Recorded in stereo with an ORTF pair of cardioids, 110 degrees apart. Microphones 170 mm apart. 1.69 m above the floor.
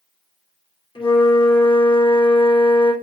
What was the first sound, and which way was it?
A flute, 30° left.